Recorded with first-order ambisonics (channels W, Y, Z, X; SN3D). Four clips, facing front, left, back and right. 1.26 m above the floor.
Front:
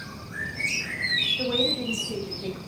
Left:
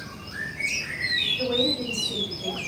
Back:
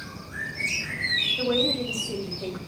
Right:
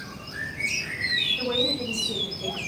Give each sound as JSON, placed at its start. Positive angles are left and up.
{"t": 1.4, "sound": "a woman speaking", "azimuth_deg": -135, "distance_m": 2.5}